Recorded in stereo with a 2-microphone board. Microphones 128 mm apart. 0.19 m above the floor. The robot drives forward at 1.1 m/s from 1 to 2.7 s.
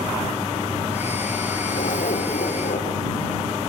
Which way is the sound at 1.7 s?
75° left (ahead or behind).